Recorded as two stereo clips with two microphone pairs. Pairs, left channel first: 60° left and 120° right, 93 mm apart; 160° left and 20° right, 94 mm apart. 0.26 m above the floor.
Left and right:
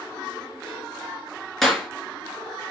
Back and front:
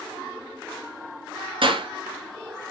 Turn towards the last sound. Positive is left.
turn(degrees=-30)